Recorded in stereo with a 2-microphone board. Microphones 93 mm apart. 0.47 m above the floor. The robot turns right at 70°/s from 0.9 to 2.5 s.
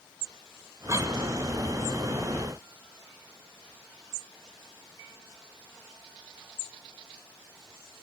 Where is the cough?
35° right (ahead or behind), 1.7 m; by 1.2 s 50° right (ahead or behind), 1.7 m.